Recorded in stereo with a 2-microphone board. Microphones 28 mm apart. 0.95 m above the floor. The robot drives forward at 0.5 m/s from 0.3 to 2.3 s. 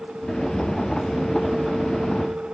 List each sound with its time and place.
Only background noise.